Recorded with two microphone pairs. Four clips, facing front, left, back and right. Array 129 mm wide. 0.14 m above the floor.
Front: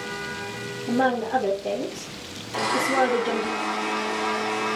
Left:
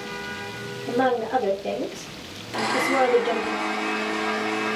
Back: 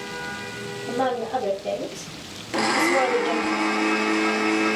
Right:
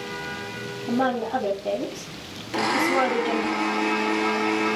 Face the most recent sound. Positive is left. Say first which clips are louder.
# even, back 2 dB
turn(degrees=-175)